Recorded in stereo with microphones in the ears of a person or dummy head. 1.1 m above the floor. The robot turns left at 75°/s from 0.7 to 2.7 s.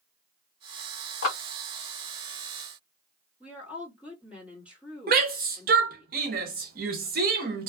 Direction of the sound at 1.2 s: 70° left (ahead or behind).